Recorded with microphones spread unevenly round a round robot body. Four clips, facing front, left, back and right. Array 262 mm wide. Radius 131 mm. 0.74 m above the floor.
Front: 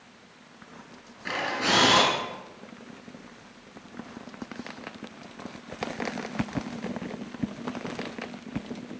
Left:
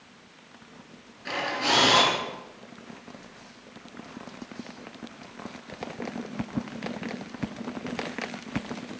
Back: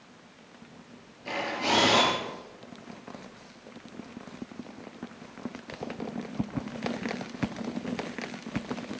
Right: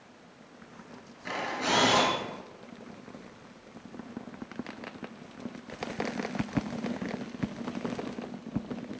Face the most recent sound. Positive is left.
turn(degrees=-5)